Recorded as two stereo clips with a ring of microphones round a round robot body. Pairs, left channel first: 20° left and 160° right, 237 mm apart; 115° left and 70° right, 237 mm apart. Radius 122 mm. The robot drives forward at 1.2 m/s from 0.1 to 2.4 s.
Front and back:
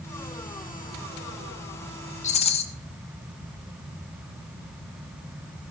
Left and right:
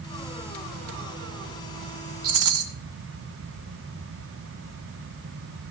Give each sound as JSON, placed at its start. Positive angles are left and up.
{"t": 2.2, "sound": "a rattle", "azimuth_deg": -40, "distance_m": 1.8}